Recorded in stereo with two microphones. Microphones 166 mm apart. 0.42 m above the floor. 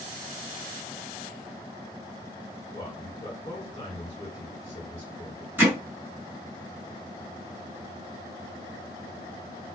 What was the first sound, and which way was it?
A man speaking, 30° left (ahead or behind).